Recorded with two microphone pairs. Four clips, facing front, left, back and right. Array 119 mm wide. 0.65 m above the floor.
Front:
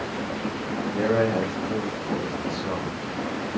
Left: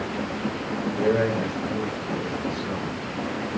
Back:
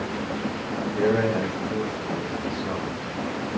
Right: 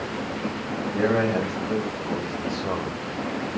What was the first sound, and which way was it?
A man speaking, 60° right.